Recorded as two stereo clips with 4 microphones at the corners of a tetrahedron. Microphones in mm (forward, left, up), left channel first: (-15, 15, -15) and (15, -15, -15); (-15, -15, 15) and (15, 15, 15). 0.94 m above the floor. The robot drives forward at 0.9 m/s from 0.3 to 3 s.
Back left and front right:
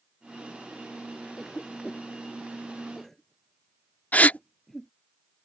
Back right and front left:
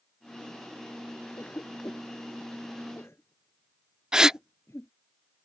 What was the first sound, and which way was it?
A cough, 140° right.